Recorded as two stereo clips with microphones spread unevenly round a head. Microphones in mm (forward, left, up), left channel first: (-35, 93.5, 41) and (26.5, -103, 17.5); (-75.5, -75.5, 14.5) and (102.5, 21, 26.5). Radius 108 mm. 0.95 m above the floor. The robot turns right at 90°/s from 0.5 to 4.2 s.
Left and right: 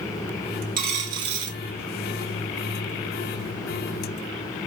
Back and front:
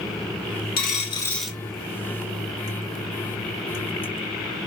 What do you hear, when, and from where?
0.8 s a dropped coin: 120° right, 1.4 m; by 1.6 s 45° right, 1.4 m